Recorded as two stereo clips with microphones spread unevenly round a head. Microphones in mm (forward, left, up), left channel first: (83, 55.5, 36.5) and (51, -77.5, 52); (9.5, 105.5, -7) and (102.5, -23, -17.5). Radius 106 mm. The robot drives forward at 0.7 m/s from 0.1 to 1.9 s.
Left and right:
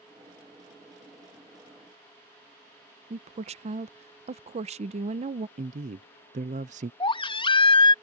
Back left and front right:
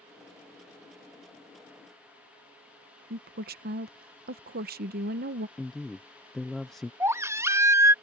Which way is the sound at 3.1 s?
80° right.